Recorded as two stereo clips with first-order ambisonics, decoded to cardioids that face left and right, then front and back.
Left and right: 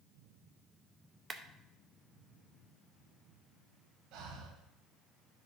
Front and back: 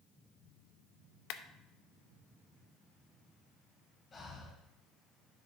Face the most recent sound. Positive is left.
turn(degrees=-70)